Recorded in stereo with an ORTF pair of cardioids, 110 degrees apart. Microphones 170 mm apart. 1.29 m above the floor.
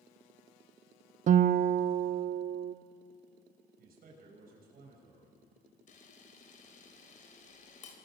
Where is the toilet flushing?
No toilet flushing in this recording.